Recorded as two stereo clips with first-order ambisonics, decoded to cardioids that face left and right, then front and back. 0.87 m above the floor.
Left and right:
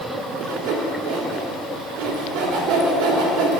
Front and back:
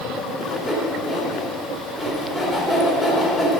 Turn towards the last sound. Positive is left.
turn(degrees=-90)